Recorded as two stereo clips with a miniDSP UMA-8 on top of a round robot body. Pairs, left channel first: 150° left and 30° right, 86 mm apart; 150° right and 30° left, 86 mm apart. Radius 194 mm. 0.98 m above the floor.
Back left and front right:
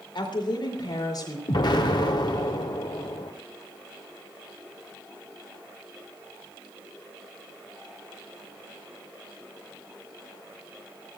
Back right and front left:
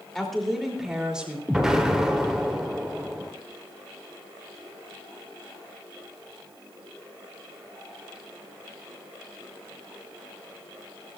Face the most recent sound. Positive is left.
turn(degrees=115)